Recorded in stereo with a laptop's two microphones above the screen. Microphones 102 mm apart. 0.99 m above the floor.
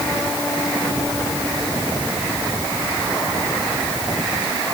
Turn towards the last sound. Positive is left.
No sound to turn to.